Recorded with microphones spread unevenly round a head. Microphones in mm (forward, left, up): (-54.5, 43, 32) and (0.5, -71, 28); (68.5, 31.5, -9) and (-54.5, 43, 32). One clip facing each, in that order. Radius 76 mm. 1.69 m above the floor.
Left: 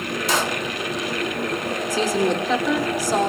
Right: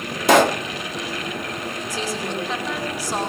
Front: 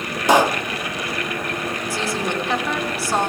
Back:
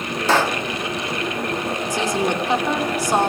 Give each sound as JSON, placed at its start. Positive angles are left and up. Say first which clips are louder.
{"t": 0.3, "sound": "a pop", "louder": "right 10 dB, front 3 dB", "azimuth_deg": -90, "distance_m": 0.7}
{"t": 1.9, "sound": "a woman speaking", "louder": "left 8 dB, back 4 dB", "azimuth_deg": 105, "distance_m": 5.5}